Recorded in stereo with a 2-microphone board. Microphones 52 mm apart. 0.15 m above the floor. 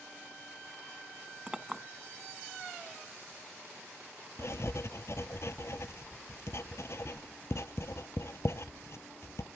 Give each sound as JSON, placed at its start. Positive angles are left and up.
{"t": 1.5, "sound": "a clink", "side_deg": -15, "distance_m": 0.7}
{"t": 4.4, "sound": "writing", "side_deg": 65, "distance_m": 0.6}